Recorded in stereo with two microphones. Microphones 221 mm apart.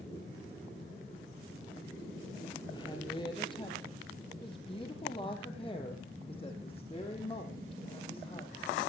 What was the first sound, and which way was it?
A woman speaking, 20° left (ahead or behind).